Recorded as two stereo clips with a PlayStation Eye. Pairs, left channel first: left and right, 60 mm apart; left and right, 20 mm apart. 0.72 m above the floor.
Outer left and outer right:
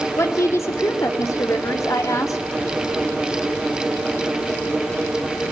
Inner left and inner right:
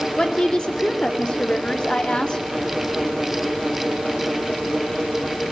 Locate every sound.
0.2 s a woman speaking: 50° left (ahead or behind), 2.5 m; by 2.4 s 60° left (ahead or behind), 2.0 m